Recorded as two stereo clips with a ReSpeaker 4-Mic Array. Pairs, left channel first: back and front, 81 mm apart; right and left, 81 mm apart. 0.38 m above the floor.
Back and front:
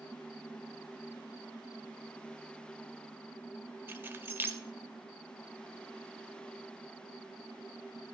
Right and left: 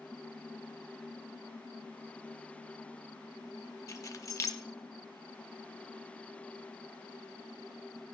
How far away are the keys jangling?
About 0.7 m.